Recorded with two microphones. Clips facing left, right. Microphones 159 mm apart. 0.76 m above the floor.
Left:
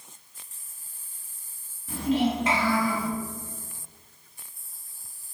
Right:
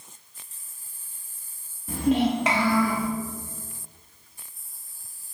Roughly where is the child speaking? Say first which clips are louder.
Right 2 dB; right.